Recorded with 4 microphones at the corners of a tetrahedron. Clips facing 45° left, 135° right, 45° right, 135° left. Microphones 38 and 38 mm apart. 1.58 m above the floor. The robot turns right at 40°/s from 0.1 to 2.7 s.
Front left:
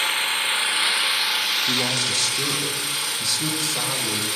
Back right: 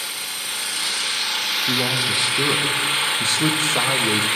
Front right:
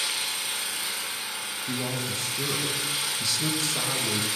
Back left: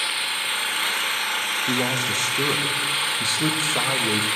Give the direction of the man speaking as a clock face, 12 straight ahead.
7 o'clock.